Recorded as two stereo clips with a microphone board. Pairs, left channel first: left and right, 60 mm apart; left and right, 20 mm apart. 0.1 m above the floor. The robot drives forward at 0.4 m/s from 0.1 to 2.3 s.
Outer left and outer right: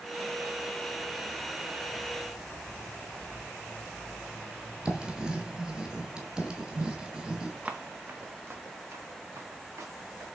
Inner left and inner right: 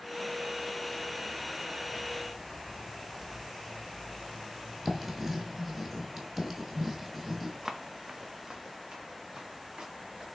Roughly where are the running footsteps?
Right.